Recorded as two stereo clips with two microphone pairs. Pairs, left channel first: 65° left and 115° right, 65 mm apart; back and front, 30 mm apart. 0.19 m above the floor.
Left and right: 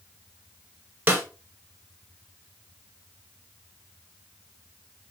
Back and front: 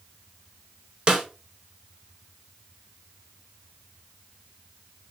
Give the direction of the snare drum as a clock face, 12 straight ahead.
2 o'clock.